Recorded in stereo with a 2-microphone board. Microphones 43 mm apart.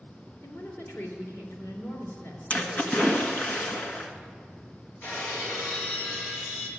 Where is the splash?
35° left (ahead or behind), 1.4 m.